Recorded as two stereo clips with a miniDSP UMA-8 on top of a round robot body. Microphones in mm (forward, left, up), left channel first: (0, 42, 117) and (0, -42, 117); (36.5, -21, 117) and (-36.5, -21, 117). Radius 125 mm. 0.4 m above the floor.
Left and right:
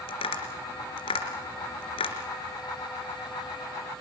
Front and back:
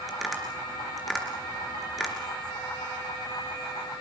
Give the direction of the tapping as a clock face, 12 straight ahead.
9 o'clock.